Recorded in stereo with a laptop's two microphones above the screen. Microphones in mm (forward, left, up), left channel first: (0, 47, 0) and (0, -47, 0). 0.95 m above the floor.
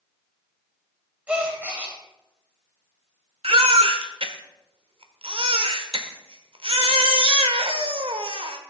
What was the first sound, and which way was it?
A gasp, 15° right (ahead or behind).